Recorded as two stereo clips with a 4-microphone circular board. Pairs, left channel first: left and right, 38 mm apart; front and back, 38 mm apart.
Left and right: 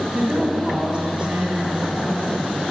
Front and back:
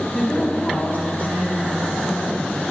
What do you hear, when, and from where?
0.1 s a woman speaking: 30° right, 1.5 m